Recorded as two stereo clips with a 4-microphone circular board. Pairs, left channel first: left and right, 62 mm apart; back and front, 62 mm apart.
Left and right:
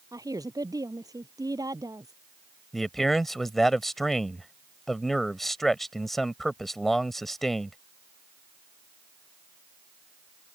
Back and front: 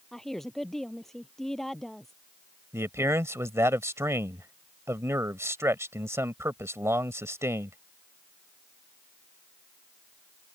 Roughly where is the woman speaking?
Right.